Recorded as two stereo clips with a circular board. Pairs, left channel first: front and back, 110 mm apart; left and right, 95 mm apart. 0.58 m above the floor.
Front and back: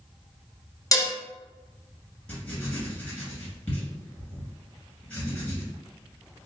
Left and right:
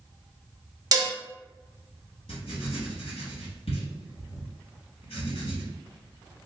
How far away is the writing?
About 1.9 m.